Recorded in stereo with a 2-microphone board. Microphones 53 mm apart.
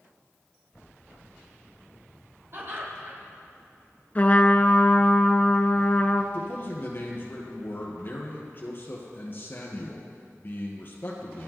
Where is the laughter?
50° right (ahead or behind), 4.5 m.